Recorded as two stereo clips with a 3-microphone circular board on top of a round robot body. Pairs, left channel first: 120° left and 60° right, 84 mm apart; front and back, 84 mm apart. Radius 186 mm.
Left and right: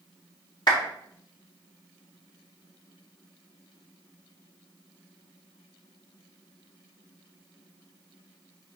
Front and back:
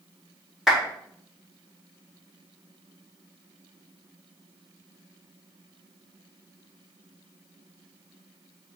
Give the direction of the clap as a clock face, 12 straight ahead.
9 o'clock.